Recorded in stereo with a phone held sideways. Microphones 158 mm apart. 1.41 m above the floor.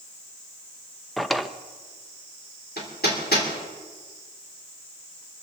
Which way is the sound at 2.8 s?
80° left.